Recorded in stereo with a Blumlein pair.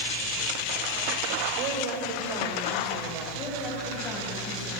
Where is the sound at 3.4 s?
30° left, 9.5 m.